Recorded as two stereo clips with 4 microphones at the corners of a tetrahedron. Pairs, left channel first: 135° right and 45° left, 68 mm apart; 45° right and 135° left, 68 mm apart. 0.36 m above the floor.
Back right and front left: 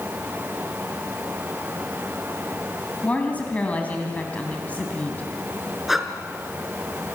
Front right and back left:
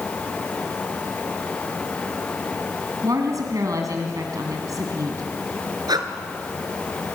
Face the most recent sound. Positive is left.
turn(degrees=130)